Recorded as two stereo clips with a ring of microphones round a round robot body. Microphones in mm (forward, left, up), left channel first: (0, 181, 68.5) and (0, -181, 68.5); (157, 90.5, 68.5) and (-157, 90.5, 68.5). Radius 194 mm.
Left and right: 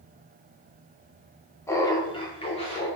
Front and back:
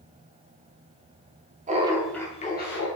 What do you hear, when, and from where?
1.7 s laughter: 160° left, 0.8 m; by 2.9 s 25° left, 1.0 m